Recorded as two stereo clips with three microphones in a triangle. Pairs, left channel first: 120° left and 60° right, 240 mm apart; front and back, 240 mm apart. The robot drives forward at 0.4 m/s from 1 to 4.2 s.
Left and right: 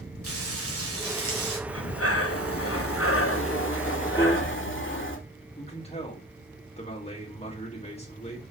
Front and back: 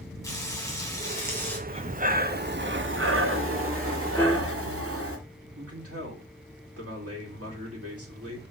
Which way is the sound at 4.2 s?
70° left.